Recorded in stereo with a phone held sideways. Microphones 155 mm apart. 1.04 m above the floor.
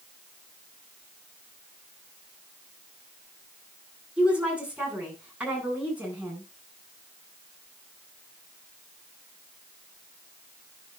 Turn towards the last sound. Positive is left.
turn(degrees=-10)  # may be behind; listen again after turning